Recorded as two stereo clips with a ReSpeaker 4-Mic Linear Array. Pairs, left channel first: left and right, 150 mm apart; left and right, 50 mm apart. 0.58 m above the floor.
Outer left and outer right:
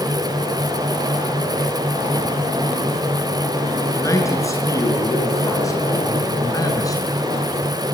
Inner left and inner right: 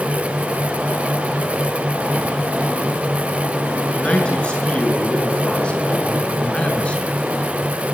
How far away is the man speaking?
About 7.5 m.